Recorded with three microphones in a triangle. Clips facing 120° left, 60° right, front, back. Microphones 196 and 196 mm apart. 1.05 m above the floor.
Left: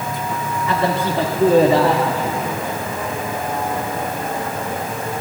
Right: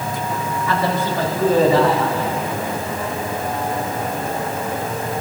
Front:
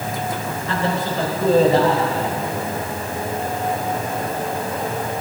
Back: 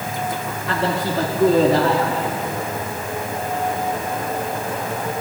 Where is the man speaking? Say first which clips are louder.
Left 1 dB, back 1 dB; 175° right, 2 m; by 2.4 s 160° left, 2.5 m.